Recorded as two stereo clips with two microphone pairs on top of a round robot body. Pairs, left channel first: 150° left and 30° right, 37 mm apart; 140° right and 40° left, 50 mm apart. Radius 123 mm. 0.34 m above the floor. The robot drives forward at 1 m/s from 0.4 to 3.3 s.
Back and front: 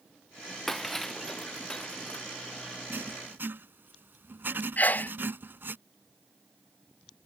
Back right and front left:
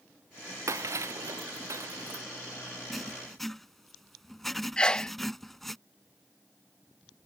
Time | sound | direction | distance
0.7 | breaking glass | 70° left | ?
2.9 | writing | 50° right | ?
4.8 | a sneeze | 170° left | ?